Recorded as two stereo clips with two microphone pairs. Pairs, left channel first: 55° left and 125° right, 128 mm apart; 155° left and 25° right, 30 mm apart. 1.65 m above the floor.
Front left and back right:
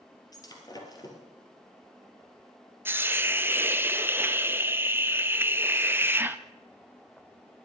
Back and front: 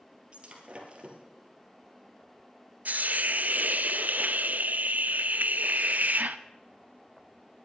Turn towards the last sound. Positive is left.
turn(degrees=-50)